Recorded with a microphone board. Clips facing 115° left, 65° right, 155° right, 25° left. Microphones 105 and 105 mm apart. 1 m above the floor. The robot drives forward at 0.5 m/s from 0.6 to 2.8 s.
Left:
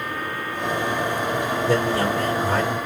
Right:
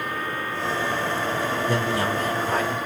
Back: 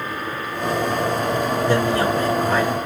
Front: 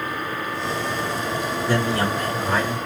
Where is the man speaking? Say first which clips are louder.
Left 5 dB, back 2 dB; 140° left, 2.5 m; by 2.8 s 145° left, 3 m.